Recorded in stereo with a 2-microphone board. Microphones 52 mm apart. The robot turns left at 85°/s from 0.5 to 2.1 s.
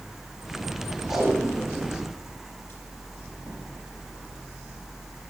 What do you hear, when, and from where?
1.1 s tape being pulled: 45° right (ahead or behind), 5.5 m; by 3.6 s 45° left (ahead or behind), 5.5 m